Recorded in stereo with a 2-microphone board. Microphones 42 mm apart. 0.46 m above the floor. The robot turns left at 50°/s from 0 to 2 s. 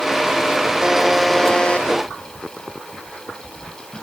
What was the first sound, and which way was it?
A buzzer, 160° right.